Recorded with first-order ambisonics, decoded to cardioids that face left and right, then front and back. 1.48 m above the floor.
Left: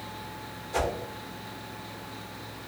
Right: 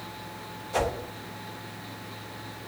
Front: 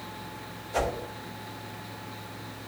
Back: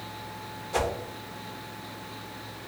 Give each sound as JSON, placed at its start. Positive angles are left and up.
{"t": 0.7, "sound": "a whoosh", "azimuth_deg": -155, "distance_m": 0.7}